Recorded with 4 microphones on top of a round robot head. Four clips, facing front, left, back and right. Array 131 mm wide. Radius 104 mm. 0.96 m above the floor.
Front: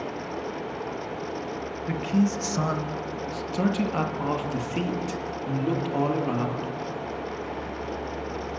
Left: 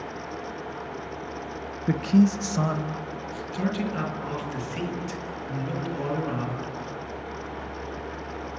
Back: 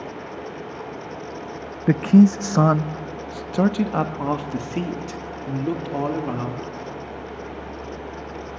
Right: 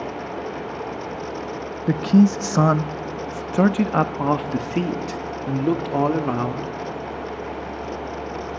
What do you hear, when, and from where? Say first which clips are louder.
1.9 s a man speaking: right 4 dB, back 10 dB; 165° right, 0.9 m; by 6.7 s 95° right, 3 m